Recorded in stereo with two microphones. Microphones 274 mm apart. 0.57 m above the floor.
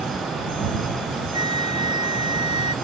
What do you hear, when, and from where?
1.3 s a flute: 15° right (ahead or behind)